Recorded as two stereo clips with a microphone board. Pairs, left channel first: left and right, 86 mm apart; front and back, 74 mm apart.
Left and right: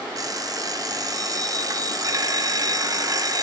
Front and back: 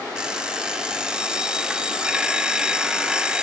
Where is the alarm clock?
105° right, 0.7 m.